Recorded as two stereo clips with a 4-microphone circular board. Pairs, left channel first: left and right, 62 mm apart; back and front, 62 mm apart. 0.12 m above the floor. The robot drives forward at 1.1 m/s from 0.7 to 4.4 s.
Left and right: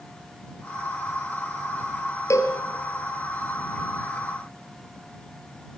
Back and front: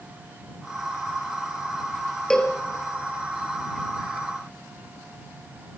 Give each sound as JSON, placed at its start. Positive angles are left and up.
{"t": 2.3, "sound": "a cowbell", "azimuth_deg": 100, "distance_m": 2.5}